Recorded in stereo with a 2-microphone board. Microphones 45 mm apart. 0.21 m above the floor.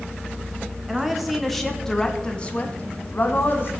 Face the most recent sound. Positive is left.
turn(degrees=50)  # may be behind; listen again after turning